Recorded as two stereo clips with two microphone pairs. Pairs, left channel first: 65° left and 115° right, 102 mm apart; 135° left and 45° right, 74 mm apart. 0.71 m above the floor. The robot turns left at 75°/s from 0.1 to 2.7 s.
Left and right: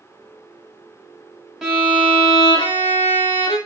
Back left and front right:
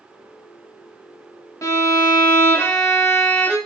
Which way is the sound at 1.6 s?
160° left.